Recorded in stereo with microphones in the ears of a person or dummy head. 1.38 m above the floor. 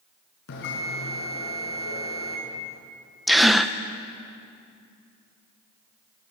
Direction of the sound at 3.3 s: Centre (ahead or behind).